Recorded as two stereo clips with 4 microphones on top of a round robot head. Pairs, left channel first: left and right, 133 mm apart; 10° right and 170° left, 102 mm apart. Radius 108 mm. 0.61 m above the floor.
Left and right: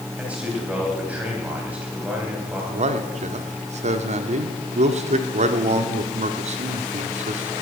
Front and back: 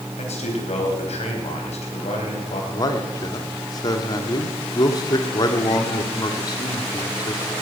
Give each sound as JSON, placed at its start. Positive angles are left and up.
{"t": 0.2, "sound": "a man speaking", "azimuth_deg": -10, "distance_m": 4.0}
{"t": 2.7, "sound": "a man speaking", "azimuth_deg": -60, "distance_m": 1.3}